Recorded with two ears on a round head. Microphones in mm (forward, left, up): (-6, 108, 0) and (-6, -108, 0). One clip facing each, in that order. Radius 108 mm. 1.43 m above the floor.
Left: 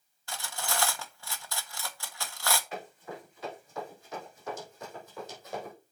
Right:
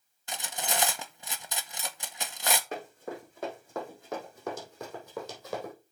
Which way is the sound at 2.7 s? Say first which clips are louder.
Right 3 dB; 40° right (ahead or behind).